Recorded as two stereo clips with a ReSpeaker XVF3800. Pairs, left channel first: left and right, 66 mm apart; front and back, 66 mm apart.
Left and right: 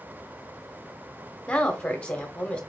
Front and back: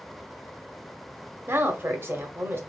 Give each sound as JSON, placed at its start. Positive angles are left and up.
{"t": 1.5, "sound": "a woman speaking", "azimuth_deg": 155, "distance_m": 0.9}